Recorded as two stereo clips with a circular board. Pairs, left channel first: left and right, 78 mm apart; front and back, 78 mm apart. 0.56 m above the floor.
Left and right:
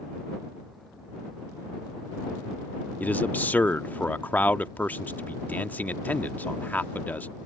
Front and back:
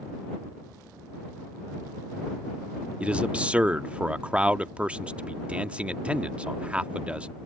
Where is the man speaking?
130° left.